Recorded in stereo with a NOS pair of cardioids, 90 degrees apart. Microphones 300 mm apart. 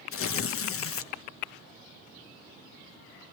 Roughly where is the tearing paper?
Ahead left.